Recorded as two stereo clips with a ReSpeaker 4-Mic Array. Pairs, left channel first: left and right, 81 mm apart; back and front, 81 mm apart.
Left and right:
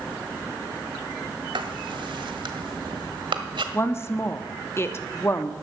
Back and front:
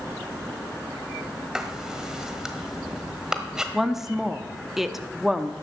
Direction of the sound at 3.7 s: 80° left.